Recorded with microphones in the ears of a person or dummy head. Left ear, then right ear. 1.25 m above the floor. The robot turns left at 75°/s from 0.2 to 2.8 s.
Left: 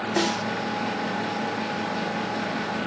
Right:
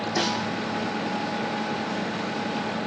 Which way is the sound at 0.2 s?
65° left (ahead or behind).